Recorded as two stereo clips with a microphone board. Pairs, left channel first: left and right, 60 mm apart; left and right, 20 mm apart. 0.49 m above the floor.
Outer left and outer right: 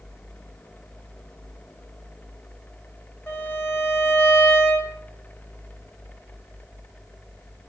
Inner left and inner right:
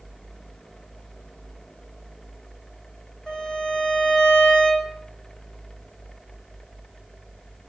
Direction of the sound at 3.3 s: 30° left (ahead or behind).